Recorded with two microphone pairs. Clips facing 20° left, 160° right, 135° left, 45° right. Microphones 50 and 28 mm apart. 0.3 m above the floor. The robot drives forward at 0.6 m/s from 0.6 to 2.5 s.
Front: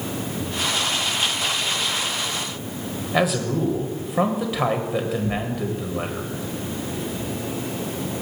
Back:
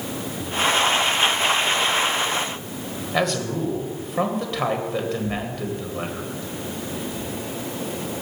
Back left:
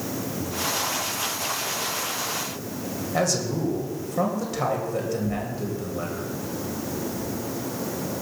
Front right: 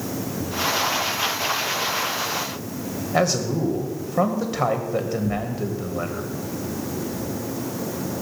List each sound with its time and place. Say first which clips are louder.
3.1 s a man speaking: front 2 dB, front right 4 dB; 55° right, 1.5 m
5.2 s tearing paper: front 2 dB, front right 3 dB; 55° right, 3.5 m